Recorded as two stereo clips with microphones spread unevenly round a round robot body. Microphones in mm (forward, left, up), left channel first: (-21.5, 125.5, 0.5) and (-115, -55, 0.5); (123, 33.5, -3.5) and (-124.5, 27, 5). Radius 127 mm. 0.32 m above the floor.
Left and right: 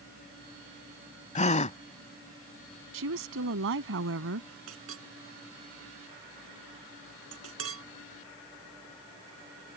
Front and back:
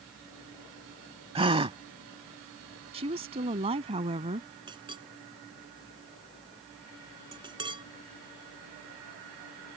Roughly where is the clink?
Right.